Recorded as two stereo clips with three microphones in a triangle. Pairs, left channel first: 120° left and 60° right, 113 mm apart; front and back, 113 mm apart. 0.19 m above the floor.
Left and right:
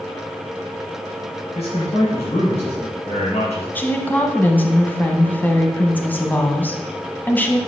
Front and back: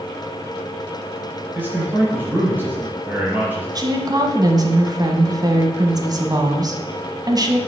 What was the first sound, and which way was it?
A man speaking, 105° left.